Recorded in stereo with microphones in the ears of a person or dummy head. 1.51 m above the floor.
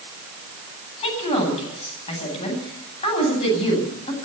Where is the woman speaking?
30° left (ahead or behind), 9.5 m.